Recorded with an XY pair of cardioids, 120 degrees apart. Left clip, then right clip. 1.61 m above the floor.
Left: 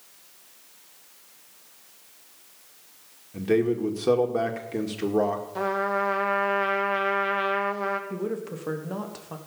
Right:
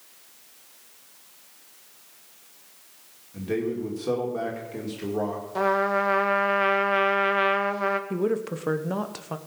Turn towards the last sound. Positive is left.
turn(degrees=-30)